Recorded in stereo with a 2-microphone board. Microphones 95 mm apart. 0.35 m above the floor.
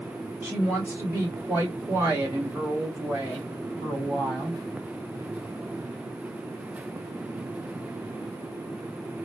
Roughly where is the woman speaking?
Centre.